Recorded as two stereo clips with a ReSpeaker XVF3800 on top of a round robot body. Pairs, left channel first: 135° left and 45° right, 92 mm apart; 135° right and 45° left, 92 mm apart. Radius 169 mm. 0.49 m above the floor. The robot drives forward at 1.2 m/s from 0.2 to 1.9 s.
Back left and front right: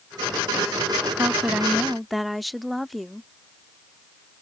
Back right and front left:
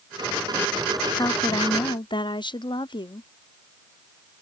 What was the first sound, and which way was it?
A woman speaking, 105° right.